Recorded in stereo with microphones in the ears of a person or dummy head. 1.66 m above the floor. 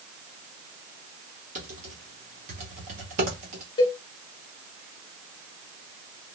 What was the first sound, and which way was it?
Typing on a keyboard, 35° right (ahead or behind).